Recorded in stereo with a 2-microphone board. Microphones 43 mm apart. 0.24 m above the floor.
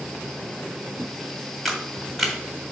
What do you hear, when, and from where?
1.6 s a camera shutter: 5° left (ahead or behind), 1.4 m